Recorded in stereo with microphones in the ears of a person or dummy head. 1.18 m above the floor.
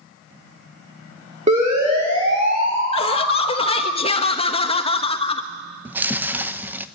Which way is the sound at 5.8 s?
15° right (ahead or behind).